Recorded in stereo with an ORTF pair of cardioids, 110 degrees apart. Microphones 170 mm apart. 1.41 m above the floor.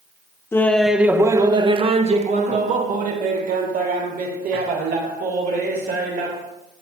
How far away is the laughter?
About 0.8 m.